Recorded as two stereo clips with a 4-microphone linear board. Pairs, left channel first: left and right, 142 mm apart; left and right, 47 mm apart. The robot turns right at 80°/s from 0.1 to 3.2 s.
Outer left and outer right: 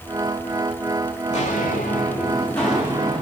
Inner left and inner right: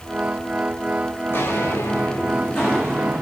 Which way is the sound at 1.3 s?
50° left (ahead or behind).